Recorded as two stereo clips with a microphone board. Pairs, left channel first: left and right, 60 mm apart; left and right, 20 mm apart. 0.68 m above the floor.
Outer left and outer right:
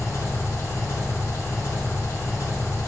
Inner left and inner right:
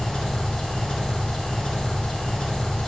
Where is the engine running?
55° left (ahead or behind), 0.8 m.